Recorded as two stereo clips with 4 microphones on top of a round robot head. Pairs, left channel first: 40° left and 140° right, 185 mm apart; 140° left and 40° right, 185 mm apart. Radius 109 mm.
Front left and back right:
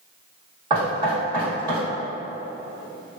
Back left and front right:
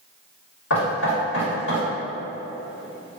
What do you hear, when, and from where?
0.7 s knocking: 155° left, 1.7 m